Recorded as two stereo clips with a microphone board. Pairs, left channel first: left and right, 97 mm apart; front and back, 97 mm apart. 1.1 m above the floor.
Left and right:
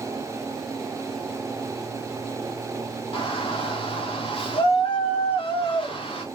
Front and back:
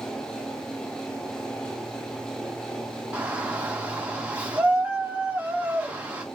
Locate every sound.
3.1 s a shout: 105° left, 1.8 m